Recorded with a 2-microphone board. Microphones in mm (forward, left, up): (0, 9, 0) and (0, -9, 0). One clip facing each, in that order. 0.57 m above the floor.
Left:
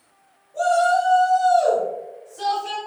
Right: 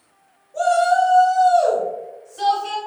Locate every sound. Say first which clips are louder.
0.5 s a shout: right 2 dB; 55° right (ahead or behind), 2.0 m